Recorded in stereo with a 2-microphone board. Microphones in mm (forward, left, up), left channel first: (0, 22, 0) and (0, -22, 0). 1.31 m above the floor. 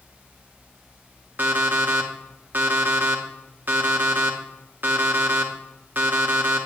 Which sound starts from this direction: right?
An alarm clock, at 1.4 s.